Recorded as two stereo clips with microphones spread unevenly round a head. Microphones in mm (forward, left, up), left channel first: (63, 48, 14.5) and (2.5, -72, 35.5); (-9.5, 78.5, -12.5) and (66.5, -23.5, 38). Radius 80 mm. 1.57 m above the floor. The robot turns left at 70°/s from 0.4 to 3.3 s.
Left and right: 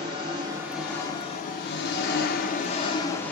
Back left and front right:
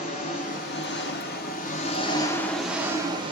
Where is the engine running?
175° right, 1.0 m; by 3.3 s 20° right, 1.0 m.